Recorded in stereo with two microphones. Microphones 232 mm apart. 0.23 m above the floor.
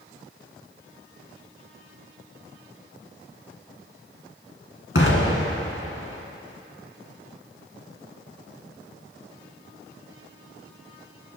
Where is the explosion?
60° left (ahead or behind), 2.5 m.